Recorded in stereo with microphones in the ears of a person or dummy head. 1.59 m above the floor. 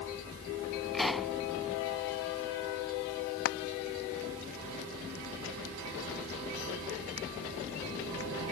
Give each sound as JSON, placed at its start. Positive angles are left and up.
{"t": 0.9, "sound": "a pop", "side_deg": 0}
{"t": 3.5, "sound": "frying", "side_deg": 65}